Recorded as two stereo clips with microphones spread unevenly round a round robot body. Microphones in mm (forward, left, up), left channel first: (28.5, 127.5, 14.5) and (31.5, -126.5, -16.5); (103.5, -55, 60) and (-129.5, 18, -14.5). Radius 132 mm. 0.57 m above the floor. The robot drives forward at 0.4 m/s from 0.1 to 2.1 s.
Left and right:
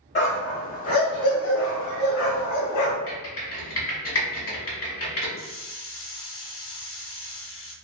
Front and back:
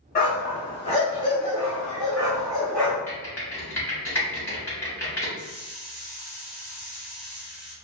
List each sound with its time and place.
0.1 s a dog barking: 45° left, 1.5 m; by 3.0 s 75° left, 1.0 m
3.1 s typing on a keyboard: 80° left, 1.5 m
5.4 s a hiss: 65° left, 0.6 m